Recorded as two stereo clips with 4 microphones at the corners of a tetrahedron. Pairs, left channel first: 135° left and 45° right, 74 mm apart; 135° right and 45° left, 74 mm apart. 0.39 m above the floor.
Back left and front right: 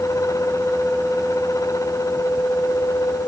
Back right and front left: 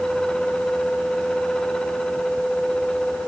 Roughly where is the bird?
I don't hear a bird.